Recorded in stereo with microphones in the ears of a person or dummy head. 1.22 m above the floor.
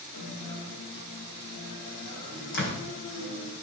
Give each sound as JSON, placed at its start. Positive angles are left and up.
{"t": 0.1, "sound": "a guitar", "side_deg": 55, "distance_m": 7.0}
{"t": 2.5, "sound": "a door slam", "side_deg": 70, "distance_m": 5.5}